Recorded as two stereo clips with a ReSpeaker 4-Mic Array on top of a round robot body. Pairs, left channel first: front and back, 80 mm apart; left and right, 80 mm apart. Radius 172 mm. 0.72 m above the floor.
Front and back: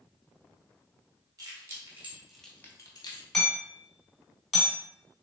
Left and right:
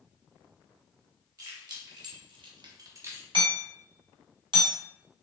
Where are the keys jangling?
130° right, 1.8 m; by 3.2 s 25° right, 1.2 m.